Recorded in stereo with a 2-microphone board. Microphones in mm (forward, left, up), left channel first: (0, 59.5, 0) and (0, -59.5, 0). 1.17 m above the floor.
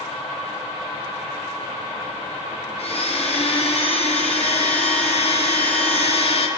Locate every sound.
2.8 s a blender: 55° left (ahead or behind), 0.9 m